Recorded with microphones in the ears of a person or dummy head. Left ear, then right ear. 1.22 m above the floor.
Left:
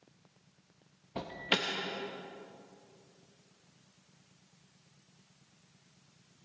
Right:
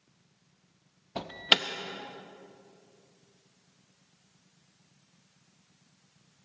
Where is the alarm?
25° right (ahead or behind), 0.7 m.